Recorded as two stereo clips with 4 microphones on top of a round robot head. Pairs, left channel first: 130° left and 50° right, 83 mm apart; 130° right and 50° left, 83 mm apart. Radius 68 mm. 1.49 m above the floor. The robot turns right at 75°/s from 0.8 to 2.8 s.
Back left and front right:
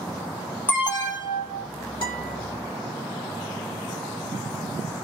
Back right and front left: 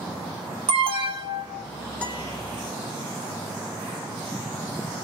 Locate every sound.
0.7 s an alarm: 60° left, 1.2 m; by 1.7 s 125° left, 1.2 m
2.0 s a guitar: 160° left, 1.4 m; by 2.4 s 175° right, 1.4 m